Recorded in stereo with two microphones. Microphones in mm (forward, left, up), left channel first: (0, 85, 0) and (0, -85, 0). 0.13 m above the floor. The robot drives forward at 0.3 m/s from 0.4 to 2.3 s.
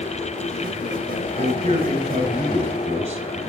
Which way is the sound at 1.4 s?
40° right (ahead or behind).